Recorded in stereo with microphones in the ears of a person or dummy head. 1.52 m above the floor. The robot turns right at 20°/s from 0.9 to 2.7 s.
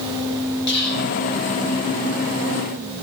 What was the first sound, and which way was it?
Whispering, 60° left (ahead or behind).